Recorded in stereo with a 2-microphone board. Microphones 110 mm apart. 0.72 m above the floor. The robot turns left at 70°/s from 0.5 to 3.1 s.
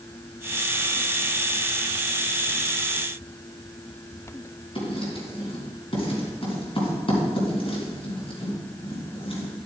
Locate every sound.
4.8 s writing: 50° left (ahead or behind), 3.5 m